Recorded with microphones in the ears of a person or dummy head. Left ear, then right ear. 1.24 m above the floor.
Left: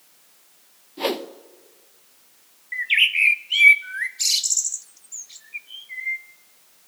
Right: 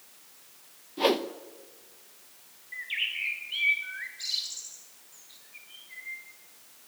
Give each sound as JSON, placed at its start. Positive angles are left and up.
{"t": 1.0, "sound": "a whoosh", "side_deg": 5, "distance_m": 0.7}
{"t": 2.7, "sound": "a bird", "side_deg": 55, "distance_m": 0.6}